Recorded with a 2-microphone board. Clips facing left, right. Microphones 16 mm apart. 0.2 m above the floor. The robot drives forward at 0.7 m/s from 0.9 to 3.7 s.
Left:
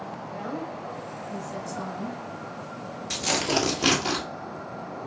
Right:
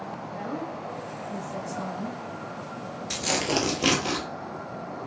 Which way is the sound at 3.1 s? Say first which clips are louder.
Left 1 dB; centre (ahead or behind).